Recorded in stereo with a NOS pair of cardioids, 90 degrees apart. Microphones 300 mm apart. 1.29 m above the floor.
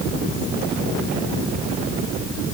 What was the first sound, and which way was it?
Only background noise.